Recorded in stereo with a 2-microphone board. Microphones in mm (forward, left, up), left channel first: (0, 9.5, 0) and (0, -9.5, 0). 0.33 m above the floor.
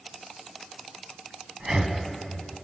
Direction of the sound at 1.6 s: 30° right (ahead or behind).